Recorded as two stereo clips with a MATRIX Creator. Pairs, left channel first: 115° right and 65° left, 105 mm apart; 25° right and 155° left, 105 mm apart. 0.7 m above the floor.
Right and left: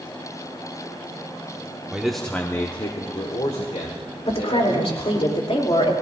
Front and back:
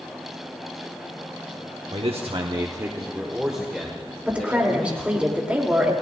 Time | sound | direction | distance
1.9 | a man speaking | 145° left | 1.2 m
4.2 | a woman speaking | 125° right | 2.5 m